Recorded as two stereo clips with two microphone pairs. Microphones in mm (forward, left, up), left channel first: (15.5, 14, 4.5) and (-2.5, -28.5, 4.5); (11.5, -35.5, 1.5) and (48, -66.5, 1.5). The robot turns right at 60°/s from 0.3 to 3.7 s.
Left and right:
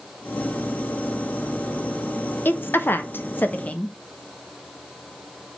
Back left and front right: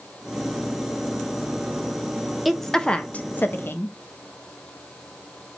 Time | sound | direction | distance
2.5 | a woman speaking | 40° left | 0.6 m